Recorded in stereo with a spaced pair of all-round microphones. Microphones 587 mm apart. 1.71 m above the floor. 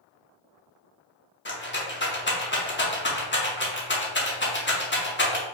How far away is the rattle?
About 0.7 m.